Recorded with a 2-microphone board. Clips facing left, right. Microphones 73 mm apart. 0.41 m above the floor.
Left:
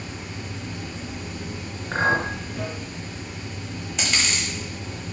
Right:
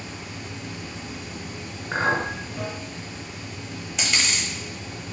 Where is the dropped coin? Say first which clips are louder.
Even; centre (ahead or behind), 0.9 m.